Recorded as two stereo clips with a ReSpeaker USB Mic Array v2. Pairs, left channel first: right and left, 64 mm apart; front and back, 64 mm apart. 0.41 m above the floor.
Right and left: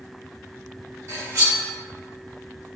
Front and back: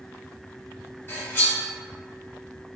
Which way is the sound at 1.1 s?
55° left.